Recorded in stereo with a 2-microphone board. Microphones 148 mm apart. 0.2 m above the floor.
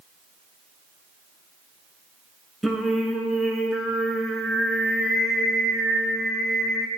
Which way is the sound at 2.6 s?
Centre (ahead or behind).